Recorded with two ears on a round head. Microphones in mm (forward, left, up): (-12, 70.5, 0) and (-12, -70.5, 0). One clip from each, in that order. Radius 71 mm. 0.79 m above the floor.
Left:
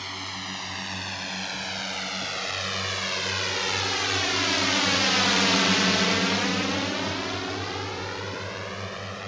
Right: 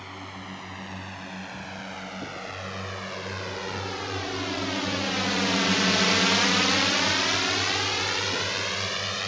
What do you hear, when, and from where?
0.0 s a drone: 80° left; by 9.3 s 75° right (ahead or behind)